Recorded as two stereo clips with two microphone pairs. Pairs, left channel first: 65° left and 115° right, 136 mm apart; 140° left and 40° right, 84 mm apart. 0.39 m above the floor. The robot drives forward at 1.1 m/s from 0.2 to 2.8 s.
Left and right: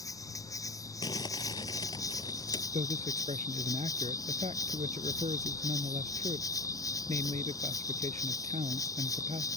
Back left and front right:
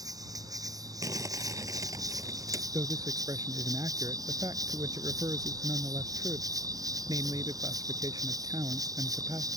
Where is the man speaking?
80° right.